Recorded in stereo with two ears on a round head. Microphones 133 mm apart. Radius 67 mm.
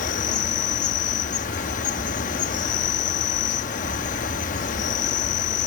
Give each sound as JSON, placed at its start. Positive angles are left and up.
{"t": 0.0, "sound": "an insect", "side_deg": 55}